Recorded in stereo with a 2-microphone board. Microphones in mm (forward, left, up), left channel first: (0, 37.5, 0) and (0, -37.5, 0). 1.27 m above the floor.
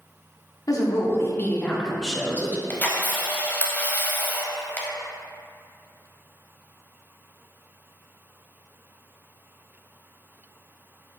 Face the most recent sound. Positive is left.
turn(degrees=20)  # may be behind; listen again after turning